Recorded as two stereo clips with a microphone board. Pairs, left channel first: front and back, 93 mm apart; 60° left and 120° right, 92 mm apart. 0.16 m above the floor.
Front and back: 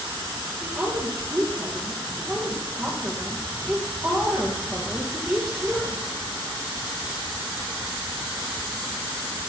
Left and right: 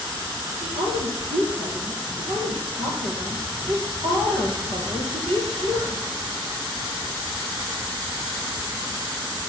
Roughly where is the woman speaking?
Right.